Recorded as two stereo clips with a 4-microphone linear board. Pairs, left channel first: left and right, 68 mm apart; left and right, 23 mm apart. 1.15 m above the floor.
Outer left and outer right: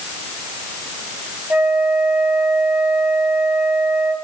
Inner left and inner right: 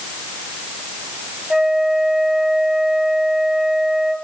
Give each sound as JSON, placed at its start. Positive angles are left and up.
{"t": 1.5, "sound": "a flute", "side_deg": -20, "distance_m": 3.0}